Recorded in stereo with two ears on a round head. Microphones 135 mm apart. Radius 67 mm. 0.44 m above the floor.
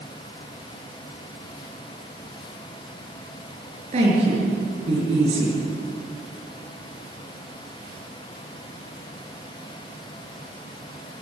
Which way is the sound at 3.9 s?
45° right (ahead or behind).